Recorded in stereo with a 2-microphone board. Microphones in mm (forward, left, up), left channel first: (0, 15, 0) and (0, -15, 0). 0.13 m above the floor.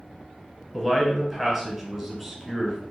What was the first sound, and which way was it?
A man speaking, 5° right (ahead or behind).